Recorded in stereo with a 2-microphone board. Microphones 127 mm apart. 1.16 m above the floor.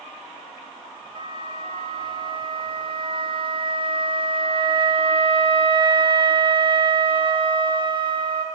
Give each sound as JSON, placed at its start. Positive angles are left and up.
{"t": 1.1, "sound": "a flute", "side_deg": -40, "distance_m": 0.7}